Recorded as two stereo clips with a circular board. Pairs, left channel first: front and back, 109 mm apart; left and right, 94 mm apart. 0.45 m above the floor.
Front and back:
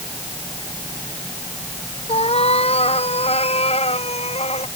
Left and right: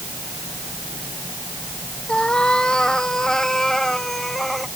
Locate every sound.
2.1 s a cat meowing: 10° left; by 4.7 s straight ahead